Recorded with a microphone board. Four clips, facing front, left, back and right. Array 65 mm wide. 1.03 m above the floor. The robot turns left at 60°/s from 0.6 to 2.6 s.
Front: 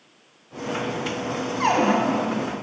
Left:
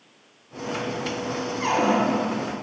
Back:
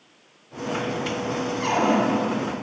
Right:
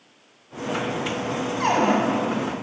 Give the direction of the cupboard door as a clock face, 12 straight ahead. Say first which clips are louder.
Right 1 dB, front 2 dB; 1 o'clock.